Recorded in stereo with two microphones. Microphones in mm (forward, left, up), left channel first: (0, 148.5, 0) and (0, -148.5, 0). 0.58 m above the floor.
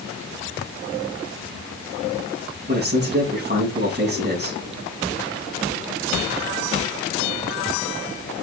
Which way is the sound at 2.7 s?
35° right (ahead or behind).